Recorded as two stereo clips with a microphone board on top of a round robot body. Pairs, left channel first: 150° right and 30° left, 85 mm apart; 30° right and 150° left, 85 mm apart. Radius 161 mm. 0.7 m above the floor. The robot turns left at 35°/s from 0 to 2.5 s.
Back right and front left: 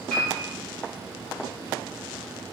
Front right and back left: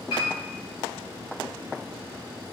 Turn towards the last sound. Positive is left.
turn(degrees=-145)